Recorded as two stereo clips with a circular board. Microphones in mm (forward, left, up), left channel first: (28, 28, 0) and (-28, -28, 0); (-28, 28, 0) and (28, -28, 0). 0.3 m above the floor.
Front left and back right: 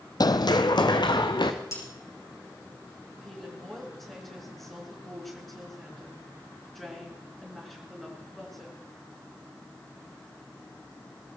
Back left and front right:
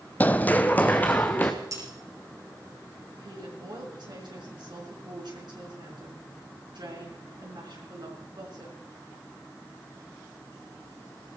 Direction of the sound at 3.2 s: 40° right.